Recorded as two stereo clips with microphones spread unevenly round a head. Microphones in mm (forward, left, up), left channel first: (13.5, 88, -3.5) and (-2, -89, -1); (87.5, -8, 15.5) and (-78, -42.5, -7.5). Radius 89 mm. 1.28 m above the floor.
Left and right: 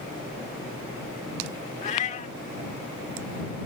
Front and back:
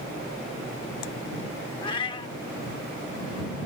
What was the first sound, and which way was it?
A cat meowing, 55° left.